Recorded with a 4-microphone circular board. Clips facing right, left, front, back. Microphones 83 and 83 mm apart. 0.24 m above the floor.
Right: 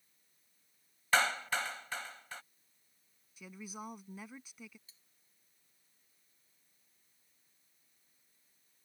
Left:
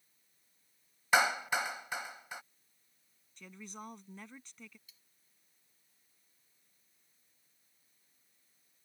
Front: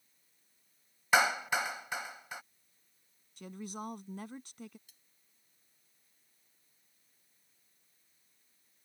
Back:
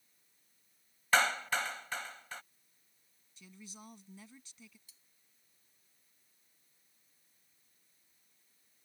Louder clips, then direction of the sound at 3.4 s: Right 2 dB, front 12 dB; 10° right.